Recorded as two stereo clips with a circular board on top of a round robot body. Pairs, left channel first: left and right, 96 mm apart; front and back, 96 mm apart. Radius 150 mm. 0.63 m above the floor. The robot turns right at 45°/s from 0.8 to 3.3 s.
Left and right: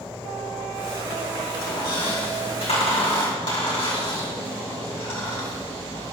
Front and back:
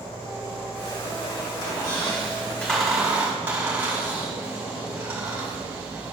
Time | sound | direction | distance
1.6 | a squeak | 35° left | 4 m